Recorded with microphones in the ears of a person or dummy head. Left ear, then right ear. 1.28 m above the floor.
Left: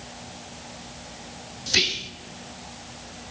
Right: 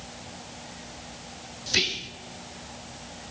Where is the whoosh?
No whoosh in this recording.